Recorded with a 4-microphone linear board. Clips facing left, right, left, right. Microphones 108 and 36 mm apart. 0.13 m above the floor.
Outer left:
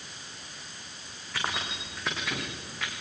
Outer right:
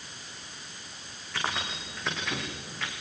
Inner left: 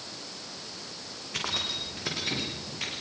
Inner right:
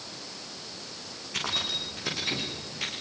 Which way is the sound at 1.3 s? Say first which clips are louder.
Even, inner right 1 dB; centre (ahead or behind).